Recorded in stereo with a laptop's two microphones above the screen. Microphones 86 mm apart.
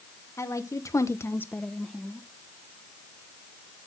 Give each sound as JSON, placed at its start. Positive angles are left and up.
{"t": 0.4, "sound": "a woman speaking", "side_deg": 40, "distance_m": 1.3}